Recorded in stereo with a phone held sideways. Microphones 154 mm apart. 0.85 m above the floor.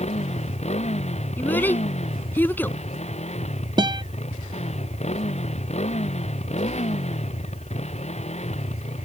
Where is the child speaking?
10° left (ahead or behind).